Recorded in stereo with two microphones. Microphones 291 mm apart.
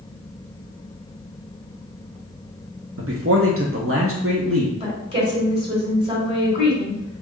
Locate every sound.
3.0 s a man speaking: 50° right (ahead or behind), 0.7 m
4.8 s a woman speaking: 20° right (ahead or behind), 2 m